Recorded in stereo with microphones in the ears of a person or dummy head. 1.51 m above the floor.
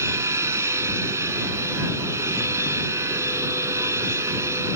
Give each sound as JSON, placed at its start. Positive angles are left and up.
{"t": 0.0, "sound": "a machine running", "side_deg": -10}